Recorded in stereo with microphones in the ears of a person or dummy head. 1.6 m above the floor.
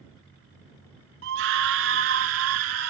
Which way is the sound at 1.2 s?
65° right (ahead or behind).